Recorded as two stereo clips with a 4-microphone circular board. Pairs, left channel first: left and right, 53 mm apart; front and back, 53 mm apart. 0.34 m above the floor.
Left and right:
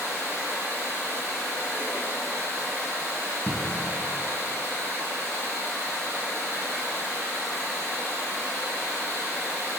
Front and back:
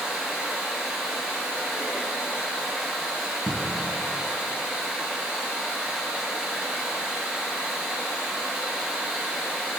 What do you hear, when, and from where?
0.0 s running water: 105° right, 2 m
3.5 s a cupboard door: 120° right, 0.7 m